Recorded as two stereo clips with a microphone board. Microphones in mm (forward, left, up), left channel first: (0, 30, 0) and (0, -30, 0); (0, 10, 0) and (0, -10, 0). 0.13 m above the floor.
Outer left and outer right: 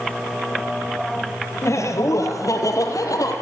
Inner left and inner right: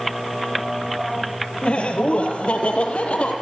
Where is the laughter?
55° left (ahead or behind), 3 m; by 3.3 s 70° left (ahead or behind), 4.5 m.